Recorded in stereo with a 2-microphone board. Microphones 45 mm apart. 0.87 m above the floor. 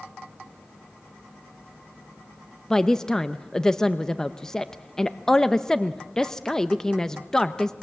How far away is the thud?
No thud in this recording.